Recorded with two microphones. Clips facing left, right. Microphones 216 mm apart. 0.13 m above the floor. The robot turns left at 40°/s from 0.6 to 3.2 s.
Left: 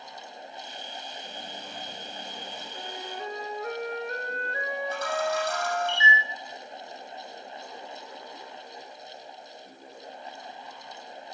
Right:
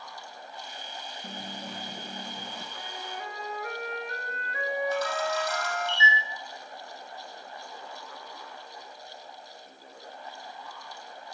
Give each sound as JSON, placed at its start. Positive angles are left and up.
{"t": 1.2, "sound": "a dropped coin", "azimuth_deg": -85, "distance_m": 1.6}
{"t": 2.8, "sound": "a flute", "side_deg": 40, "distance_m": 1.4}
{"t": 4.9, "sound": "a camera shutter", "side_deg": 55, "distance_m": 5.5}